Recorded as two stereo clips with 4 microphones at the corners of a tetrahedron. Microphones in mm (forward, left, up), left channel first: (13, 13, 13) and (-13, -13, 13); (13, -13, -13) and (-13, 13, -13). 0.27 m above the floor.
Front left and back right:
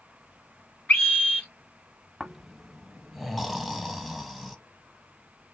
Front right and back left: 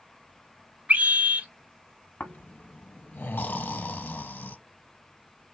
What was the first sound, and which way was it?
A scream, 90° left.